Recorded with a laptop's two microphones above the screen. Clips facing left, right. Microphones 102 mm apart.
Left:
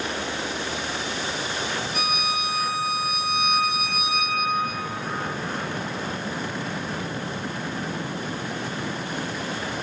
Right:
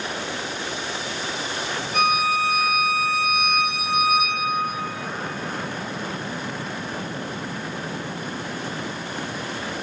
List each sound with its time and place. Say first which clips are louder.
1.9 s a violin: right 10 dB; 60° right (ahead or behind), 3 m